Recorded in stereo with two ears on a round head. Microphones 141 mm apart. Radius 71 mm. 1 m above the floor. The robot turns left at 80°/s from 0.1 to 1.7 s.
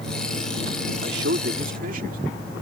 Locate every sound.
1.0 s a man speaking: 70° right; by 2.2 s 125° right